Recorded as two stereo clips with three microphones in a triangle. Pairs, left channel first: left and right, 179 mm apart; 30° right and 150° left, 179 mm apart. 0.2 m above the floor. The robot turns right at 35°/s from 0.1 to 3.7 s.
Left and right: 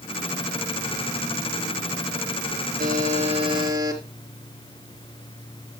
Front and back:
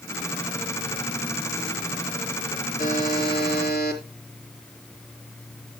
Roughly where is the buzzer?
Ahead right.